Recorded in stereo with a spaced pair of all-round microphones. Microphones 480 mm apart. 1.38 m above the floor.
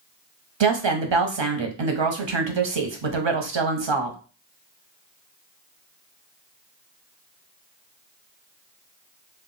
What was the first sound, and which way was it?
A woman speaking, 65° right (ahead or behind).